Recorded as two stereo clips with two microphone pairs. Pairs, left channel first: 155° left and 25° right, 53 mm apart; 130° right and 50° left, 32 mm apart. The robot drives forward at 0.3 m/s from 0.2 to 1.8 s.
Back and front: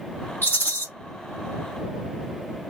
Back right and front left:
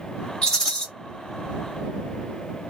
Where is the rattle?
175° left, 1.5 m.